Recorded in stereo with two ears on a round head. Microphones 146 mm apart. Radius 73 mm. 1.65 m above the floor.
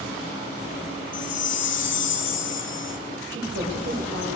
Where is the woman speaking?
75° right (ahead or behind), 7.5 m.